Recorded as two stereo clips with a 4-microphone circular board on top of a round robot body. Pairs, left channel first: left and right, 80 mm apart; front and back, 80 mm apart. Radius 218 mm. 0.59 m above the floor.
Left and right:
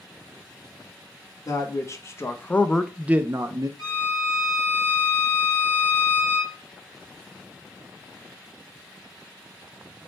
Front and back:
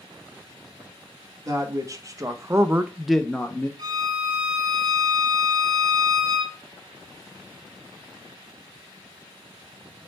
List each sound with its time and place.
1.4 s a man speaking: 135° left, 1.1 m; by 3.7 s 60° right, 0.7 m
3.8 s a violin: 145° left, 1.0 m